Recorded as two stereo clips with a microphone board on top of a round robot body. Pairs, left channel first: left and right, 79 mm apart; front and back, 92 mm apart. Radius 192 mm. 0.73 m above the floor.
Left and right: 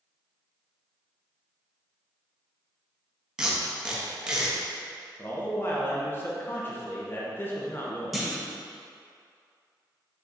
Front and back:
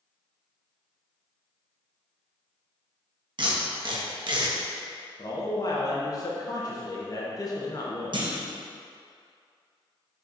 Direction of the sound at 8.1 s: Straight behind.